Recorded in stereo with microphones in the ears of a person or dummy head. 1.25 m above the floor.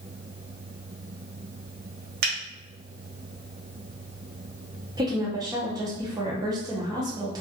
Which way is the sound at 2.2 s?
55° right (ahead or behind).